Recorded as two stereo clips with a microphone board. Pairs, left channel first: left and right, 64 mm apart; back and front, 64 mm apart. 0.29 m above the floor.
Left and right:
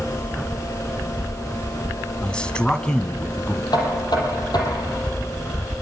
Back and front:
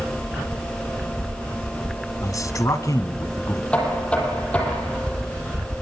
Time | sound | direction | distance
2.2 | a man speaking | 165° left | 2.5 m
3.7 | knocking | 105° left | 7 m